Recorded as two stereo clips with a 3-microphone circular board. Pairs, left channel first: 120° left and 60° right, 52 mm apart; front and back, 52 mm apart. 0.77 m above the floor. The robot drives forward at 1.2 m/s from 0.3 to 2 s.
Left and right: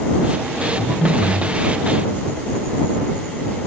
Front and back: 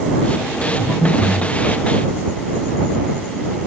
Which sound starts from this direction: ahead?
Breathing, at 0.8 s.